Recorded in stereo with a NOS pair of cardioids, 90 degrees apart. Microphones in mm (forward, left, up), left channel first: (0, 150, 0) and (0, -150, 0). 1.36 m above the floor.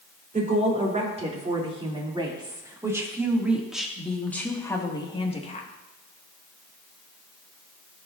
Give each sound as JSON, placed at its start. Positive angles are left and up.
{"t": 0.3, "sound": "a woman speaking", "azimuth_deg": -25, "distance_m": 4.0}